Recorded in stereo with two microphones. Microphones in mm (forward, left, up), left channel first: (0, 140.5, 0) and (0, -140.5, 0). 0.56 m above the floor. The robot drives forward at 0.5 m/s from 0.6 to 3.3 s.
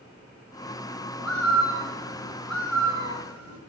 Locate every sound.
1.2 s a bird: 65° left (ahead or behind), 3.5 m; by 3.6 s 70° left (ahead or behind), 3.5 m